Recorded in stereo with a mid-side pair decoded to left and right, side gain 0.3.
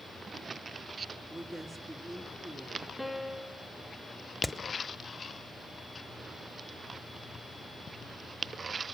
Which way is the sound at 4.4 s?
Straight ahead.